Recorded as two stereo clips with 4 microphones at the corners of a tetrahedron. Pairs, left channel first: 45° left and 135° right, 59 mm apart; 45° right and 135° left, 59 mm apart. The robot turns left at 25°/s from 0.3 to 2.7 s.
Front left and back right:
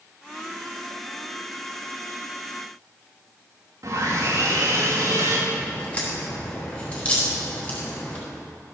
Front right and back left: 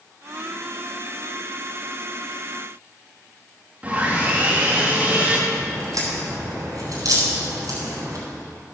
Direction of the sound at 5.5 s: 115° left.